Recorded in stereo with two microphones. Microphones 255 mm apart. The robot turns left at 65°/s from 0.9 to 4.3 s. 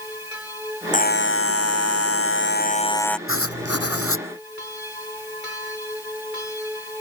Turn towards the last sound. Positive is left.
turn(degrees=55)